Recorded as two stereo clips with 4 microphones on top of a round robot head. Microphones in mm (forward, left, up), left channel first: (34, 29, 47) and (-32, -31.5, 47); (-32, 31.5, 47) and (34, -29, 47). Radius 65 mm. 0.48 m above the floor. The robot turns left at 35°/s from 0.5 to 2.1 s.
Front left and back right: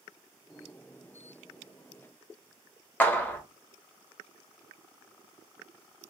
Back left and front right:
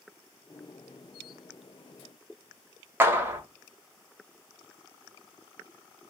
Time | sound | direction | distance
3.0 | a clap | 10° right | 0.9 m